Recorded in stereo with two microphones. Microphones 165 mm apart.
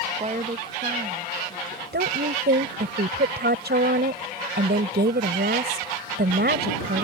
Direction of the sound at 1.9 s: 85° right.